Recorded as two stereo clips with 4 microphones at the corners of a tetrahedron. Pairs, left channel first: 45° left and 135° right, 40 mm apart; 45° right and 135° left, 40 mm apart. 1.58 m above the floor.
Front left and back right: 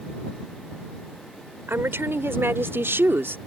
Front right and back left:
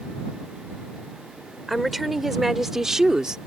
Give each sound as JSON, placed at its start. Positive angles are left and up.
{"t": 1.7, "sound": "a woman speaking", "azimuth_deg": -135}